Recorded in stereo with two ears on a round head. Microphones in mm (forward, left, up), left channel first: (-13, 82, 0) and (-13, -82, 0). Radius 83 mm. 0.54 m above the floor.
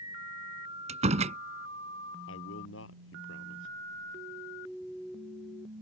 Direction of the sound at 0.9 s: 40° right (ahead or behind).